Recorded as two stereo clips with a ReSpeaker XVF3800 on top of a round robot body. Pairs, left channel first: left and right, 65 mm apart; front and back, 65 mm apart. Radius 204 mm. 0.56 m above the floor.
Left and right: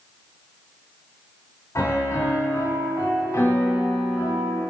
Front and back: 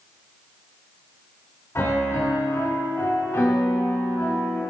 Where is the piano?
50° left, 2.5 m.